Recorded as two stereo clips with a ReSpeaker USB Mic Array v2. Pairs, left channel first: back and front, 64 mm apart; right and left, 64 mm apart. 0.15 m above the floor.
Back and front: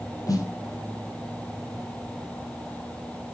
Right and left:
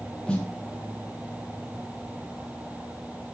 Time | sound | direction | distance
0.3 | a snare drum | 165° right | 3.5 m